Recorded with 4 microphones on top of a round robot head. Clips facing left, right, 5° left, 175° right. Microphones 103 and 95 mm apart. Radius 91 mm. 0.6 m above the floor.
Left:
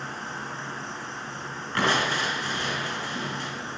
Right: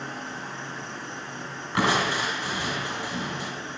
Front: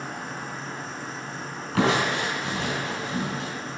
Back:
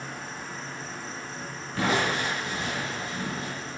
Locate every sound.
0.0 s an insect: 40° left, 3.5 m
1.8 s crushing: 10° right, 4 m